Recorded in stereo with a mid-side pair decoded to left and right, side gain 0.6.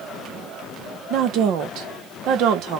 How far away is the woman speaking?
About 0.8 m.